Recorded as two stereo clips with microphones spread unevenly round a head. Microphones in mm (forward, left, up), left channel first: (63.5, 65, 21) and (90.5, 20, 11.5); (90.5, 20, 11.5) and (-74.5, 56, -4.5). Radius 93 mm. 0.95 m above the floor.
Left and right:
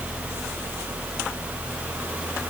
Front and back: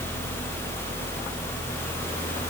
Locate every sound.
Only background noise.